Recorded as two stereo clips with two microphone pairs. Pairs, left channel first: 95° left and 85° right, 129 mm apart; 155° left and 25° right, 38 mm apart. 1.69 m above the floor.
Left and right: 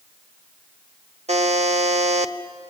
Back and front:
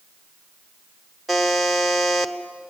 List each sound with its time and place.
1.3 s a buzzer: 115° right, 0.8 m